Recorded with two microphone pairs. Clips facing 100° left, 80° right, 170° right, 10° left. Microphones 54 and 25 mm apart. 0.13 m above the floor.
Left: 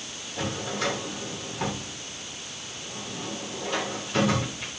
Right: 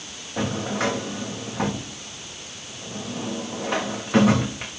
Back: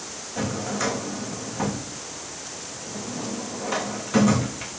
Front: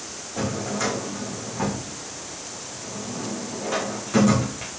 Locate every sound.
0.4 s a drawer: 85° right, 4 m